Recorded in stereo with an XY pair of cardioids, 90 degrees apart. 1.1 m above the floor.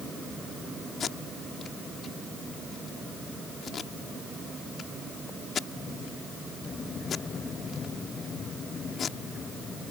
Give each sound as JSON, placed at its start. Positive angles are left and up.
{"t": 1.0, "sound": "tape being pulled", "azimuth_deg": 60}